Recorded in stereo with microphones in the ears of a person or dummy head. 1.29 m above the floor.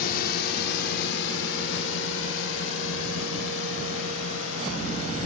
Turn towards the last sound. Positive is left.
turn(degrees=85)